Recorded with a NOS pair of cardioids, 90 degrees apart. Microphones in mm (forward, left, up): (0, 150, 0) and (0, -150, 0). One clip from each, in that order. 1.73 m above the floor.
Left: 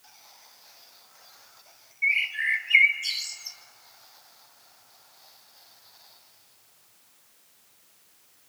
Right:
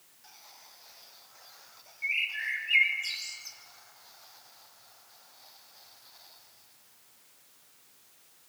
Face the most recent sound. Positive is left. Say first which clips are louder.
# left 6 dB
turn(degrees=40)